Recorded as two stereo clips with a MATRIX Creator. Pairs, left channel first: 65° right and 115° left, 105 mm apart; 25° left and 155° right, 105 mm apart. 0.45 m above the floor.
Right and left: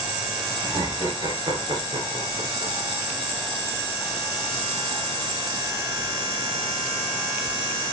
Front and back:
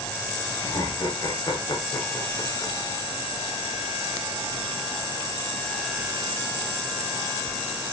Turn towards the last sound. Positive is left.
turn(degrees=85)